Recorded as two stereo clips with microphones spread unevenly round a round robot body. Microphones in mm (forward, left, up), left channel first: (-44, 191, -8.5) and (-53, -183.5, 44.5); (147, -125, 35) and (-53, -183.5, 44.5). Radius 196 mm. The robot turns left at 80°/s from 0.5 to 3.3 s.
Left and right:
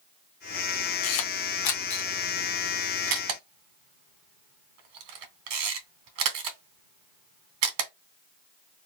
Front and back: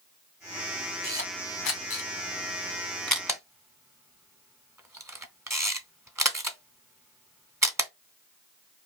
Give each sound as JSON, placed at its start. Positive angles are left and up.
{"t": 1.0, "sound": "a camera shutter", "azimuth_deg": 95, "distance_m": 1.4}